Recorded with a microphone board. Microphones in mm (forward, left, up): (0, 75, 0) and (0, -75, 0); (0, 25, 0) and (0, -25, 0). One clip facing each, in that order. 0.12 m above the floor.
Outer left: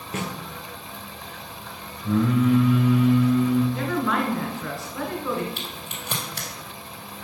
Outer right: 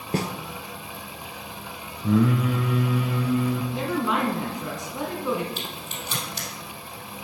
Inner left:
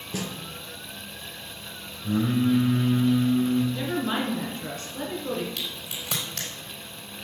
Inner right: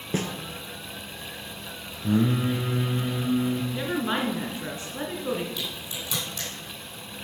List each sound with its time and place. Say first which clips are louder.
0.1 s a snare drum: outer right 4 dB, inner right 4 dB; 35° right (ahead or behind), 0.8 m
2.0 s singing: outer left 1 dB, even; 70° right (ahead or behind), 1.8 m
3.7 s a woman speaking: outer left 1 dB, even; 20° right (ahead or behind), 1.9 m
5.6 s a crack: outer right 1 dB, inner right 1 dB; 55° left (ahead or behind), 3 m